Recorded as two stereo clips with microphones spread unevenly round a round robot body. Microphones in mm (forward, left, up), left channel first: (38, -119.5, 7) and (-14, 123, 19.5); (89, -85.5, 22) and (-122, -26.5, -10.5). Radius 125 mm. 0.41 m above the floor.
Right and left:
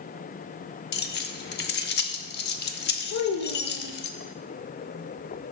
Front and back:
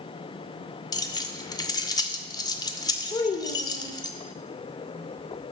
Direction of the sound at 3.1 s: 85° right.